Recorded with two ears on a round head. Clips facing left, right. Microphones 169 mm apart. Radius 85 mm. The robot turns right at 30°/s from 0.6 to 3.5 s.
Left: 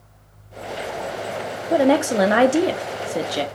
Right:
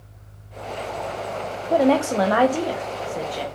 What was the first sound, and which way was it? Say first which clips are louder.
A woman speaking: left 1 dB; 5° left.